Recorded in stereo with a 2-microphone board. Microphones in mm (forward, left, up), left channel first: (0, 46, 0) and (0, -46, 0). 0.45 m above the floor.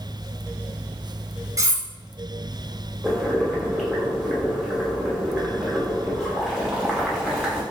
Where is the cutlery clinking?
35° right (ahead or behind), 0.5 m.